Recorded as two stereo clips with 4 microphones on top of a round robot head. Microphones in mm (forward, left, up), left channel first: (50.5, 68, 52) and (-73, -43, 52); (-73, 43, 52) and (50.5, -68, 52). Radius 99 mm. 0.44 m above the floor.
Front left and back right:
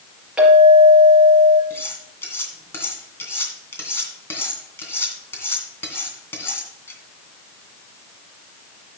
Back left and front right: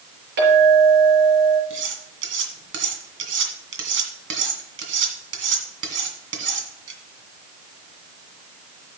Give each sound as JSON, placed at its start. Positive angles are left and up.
{"t": 0.4, "sound": "a clink", "azimuth_deg": -50, "distance_m": 5.5}
{"t": 1.7, "sound": "cutlery clinking", "azimuth_deg": -35, "distance_m": 2.5}